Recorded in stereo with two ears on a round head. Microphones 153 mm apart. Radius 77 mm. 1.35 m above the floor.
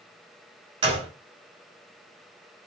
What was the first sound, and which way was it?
A gunshot, 30° right (ahead or behind).